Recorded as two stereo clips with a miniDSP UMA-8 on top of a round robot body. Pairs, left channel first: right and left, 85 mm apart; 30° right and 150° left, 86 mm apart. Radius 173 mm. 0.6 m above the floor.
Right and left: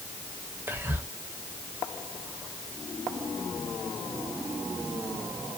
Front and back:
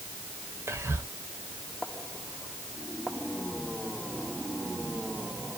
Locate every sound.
0.7 s whispering: 130° left, 0.8 m